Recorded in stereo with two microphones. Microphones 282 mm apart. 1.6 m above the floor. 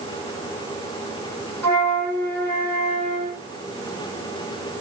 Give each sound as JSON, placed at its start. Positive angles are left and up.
{"t": 1.6, "sound": "a flute", "side_deg": 10, "distance_m": 1.8}